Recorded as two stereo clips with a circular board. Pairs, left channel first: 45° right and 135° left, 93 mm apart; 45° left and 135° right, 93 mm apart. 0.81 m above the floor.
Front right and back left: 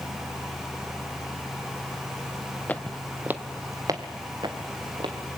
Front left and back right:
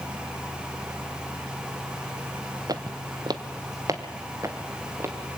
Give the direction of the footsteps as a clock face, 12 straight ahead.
4 o'clock.